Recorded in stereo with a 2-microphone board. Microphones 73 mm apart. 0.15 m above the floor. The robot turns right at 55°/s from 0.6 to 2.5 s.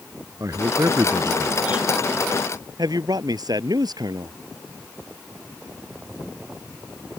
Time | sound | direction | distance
0.4 | a man speaking | 90° right | ?
2.8 | a man speaking | 65° right (ahead or behind) | ?